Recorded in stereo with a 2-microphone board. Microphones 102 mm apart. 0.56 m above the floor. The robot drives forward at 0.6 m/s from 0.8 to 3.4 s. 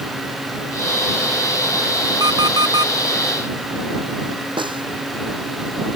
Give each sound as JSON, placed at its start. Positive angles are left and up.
{"t": 2.2, "sound": "an alarm clock", "side_deg": -40}
{"t": 4.6, "sound": "a snare drum", "side_deg": -50}